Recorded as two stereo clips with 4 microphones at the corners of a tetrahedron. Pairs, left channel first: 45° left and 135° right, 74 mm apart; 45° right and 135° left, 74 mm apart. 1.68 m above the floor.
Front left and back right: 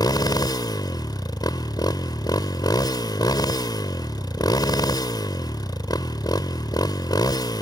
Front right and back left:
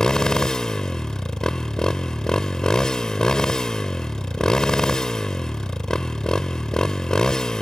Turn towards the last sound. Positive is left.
turn(degrees=35)